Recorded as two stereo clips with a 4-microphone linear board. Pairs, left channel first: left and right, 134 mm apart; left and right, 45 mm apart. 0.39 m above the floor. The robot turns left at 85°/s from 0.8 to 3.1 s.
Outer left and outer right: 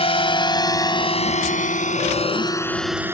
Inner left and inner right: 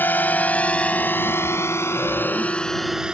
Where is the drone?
45° left (ahead or behind); by 3.1 s 15° right (ahead or behind).